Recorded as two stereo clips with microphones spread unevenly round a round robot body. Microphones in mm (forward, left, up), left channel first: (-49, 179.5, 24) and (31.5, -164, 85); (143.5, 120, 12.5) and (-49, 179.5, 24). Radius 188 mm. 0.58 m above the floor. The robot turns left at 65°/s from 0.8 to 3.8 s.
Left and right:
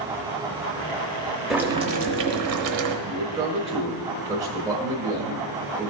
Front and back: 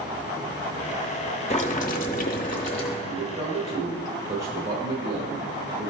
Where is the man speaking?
145° right, 1.3 m; by 5.9 s 165° left, 1.3 m.